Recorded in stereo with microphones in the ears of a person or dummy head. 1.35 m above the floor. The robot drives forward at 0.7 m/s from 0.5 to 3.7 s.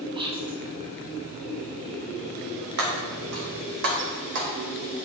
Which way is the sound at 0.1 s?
20° right (ahead or behind).